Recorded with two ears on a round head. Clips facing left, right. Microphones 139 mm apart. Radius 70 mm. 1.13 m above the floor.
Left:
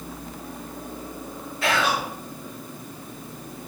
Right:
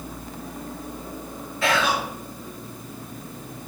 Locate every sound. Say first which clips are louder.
1.6 s whispering: right 1 dB; 75° right (ahead or behind), 1.4 m